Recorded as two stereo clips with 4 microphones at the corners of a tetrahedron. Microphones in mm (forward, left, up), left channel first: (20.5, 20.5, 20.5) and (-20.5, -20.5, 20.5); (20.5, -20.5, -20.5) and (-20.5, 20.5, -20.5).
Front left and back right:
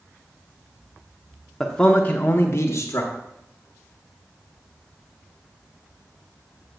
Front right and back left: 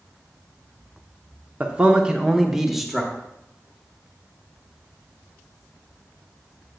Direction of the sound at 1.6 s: 120° left.